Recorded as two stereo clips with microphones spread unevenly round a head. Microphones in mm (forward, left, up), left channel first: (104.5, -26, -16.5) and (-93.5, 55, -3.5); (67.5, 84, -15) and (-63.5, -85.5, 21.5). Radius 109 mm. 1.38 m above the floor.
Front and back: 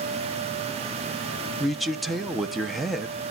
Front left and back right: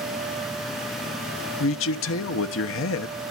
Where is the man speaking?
65° left, 1.0 m.